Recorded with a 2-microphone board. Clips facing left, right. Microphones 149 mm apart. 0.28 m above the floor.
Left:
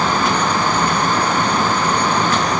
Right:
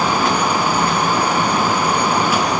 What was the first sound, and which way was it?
Only background noise.